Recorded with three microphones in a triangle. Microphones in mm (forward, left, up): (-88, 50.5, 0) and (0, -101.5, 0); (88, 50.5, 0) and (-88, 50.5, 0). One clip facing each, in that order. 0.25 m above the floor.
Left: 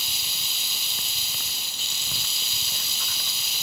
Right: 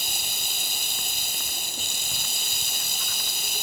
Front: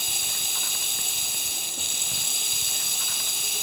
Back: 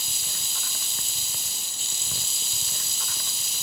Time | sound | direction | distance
0.0 | running water | 25° right | ?